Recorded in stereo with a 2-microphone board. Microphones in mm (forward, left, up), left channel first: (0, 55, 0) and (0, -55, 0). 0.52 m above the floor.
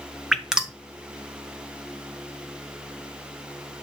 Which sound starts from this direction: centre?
Dripping, at 0.3 s.